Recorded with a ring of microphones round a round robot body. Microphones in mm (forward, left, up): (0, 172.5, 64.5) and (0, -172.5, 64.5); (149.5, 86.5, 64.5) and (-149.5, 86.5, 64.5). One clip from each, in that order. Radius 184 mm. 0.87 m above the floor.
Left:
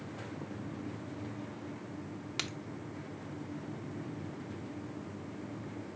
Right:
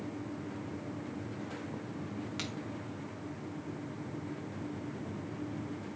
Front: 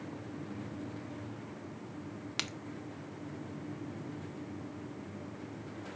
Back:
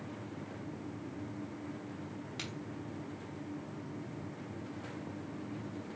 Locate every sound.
2.4 s a crack: 20° left, 0.7 m